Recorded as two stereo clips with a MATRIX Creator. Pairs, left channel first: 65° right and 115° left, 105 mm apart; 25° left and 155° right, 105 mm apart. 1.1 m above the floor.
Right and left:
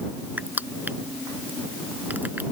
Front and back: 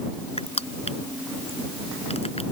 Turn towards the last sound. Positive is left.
turn(degrees=40)